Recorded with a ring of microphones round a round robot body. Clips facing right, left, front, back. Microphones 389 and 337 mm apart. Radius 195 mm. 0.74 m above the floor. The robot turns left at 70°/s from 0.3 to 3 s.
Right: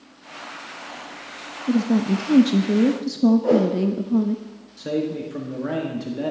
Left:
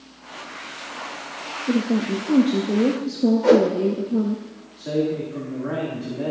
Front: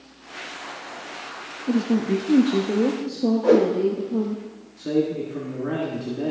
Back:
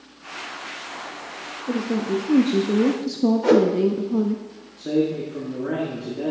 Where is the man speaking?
85° right, 1.6 m.